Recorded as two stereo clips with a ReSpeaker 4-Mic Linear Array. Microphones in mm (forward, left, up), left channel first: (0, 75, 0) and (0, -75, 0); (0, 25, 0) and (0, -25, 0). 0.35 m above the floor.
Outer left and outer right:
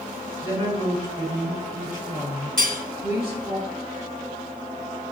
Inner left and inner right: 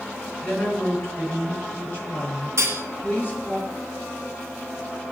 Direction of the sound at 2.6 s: 70° right (ahead or behind).